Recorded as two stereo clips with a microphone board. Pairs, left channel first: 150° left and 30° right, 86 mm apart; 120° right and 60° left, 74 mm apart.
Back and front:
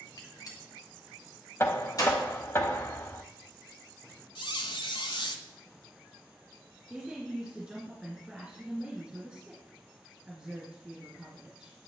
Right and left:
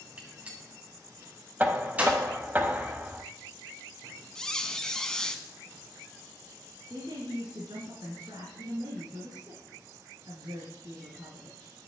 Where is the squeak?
160° left, 0.7 m.